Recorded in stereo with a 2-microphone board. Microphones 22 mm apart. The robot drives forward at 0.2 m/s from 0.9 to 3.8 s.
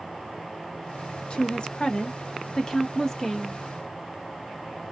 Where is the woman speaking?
45° left (ahead or behind), 0.6 m; by 3.6 s 25° left (ahead or behind), 1.0 m.